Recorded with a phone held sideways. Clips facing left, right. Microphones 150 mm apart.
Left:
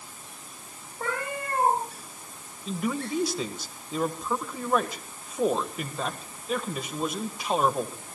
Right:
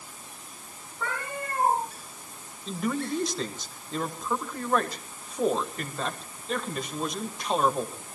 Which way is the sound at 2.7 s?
5° left (ahead or behind).